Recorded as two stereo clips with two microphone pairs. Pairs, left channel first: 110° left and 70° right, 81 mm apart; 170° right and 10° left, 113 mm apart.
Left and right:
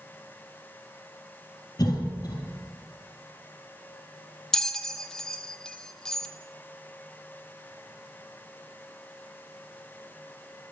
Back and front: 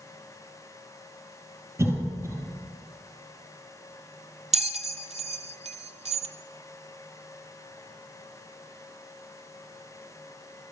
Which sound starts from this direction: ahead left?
A bell, at 4.5 s.